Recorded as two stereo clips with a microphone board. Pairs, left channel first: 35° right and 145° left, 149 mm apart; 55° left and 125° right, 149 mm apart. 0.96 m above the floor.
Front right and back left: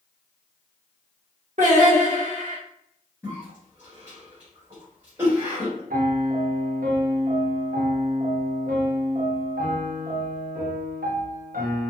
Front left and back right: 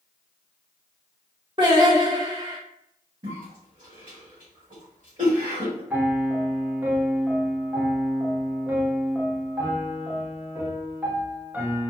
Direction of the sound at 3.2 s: 145° right.